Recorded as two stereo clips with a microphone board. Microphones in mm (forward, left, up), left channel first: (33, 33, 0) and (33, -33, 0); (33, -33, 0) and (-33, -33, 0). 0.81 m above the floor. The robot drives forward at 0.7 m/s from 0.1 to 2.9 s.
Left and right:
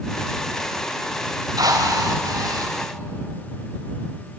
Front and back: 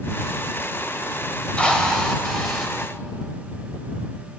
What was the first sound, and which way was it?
A drill, 75° right.